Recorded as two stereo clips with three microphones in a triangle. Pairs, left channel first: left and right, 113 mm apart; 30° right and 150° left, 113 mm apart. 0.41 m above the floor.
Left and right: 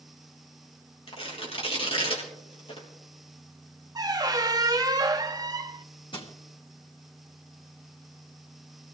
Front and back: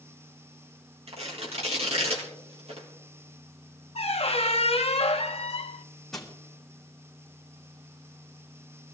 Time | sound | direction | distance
1.1 | tearing paper | 125° left | 3.5 m
4.0 | a squeak | 40° right | 0.9 m
6.1 | crushing | 60° left | 2.5 m